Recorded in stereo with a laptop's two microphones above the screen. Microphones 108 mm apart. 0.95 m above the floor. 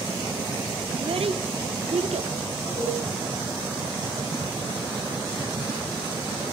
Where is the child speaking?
65° right (ahead or behind), 1.5 m; by 2.3 s 85° right, 2.0 m.